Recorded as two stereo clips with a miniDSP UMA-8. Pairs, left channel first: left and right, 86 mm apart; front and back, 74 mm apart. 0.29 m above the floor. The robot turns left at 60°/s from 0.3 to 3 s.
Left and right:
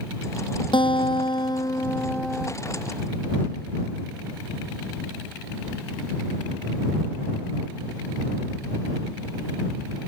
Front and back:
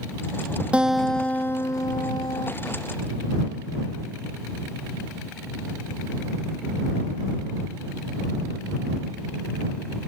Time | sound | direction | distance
0.7 | a guitar | 105° left | ?